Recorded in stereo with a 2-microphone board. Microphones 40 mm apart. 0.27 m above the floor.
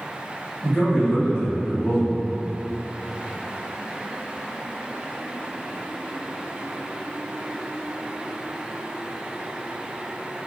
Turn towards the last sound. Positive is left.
turn(degrees=20)  # may be behind; listen again after turning